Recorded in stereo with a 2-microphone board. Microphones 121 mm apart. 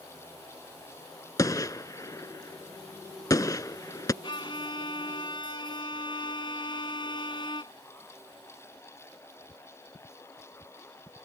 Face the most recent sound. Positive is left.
turn(degrees=40)  # may be behind; listen again after turning